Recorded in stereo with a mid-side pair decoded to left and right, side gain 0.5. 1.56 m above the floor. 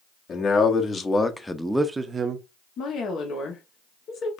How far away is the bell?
I don't hear a bell.